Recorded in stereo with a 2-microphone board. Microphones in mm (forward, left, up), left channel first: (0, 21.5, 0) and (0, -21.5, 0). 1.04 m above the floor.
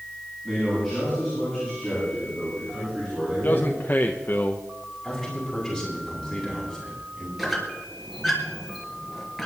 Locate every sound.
0.4 s a man speaking: centre (ahead or behind), 9.5 m; by 3.8 s 5° left (ahead or behind), 13 m
3.3 s a man speaking: 45° left (ahead or behind), 0.9 m
5.0 s a man speaking: 5° left (ahead or behind), 9 m
7.4 s a squeak: centre (ahead or behind), 3 m